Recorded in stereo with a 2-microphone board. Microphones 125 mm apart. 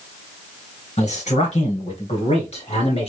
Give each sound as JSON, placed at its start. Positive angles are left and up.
{"t": 1.0, "sound": "a man speaking", "side_deg": 60, "distance_m": 2.5}